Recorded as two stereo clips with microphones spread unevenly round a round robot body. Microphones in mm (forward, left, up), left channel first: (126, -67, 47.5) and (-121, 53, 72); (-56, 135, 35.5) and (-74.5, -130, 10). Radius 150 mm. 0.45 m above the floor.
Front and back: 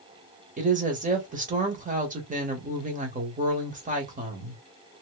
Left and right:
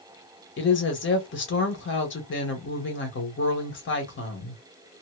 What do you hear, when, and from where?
0.6 s a woman speaking: 100° left, 1.6 m